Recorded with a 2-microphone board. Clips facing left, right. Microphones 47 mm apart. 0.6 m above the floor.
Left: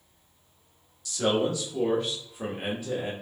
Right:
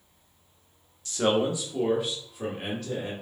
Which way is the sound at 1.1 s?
35° right (ahead or behind).